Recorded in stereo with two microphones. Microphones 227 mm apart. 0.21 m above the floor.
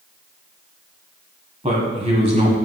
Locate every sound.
1.6 s a man speaking: 30° right (ahead or behind), 1.4 m